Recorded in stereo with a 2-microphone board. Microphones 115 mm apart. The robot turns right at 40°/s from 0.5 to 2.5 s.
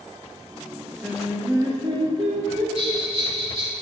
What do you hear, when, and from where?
1.0 s singing: 165° right, 1.5 m; by 2.6 s 105° right, 1.5 m
2.8 s a bell: 50° right (ahead or behind), 2.5 m